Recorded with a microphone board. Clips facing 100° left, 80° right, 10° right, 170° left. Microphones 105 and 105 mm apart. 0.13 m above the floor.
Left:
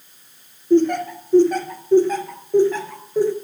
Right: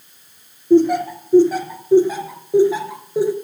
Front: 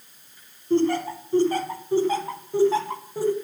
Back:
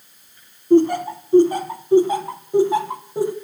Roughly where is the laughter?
Behind right.